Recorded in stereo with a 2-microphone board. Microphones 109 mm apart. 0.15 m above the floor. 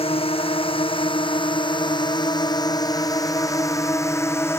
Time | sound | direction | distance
0.0 | a drone | 60° left (ahead or behind) | ?